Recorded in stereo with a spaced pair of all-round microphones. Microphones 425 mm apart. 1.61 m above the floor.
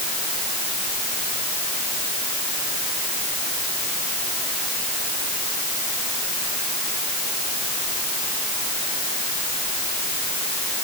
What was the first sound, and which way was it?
Only background noise.